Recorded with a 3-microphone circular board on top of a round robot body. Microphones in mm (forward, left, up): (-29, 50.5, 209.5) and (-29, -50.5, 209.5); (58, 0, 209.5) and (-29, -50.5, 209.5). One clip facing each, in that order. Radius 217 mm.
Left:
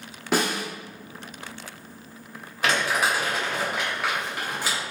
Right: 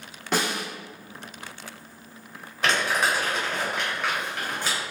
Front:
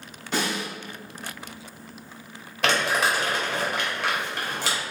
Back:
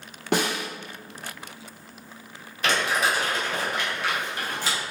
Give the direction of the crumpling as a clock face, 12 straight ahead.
12 o'clock.